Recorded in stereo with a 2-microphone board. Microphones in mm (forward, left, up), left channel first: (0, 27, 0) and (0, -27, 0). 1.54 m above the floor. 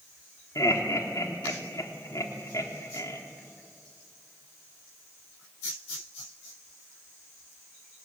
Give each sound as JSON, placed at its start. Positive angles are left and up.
{"t": 0.6, "sound": "laughter", "side_deg": 85, "distance_m": 3.5}